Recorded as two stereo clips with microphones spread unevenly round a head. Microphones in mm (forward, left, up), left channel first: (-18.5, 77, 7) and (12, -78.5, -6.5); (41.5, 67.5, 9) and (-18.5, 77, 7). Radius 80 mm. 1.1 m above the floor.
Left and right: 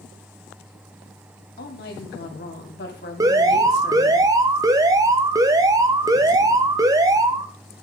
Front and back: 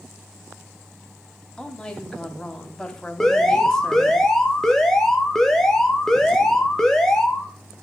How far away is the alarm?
About 1.0 m.